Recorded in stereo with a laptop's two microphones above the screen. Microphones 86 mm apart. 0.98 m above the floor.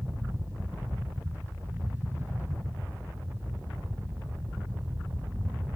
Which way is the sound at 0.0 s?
30° right (ahead or behind).